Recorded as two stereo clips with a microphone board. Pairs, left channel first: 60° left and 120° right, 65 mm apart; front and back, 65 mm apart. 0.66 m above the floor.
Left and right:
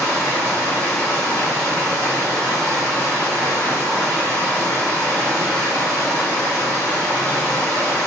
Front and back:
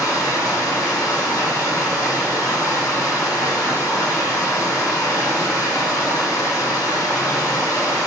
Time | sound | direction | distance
0.0 | running water | 10° left | 1.6 m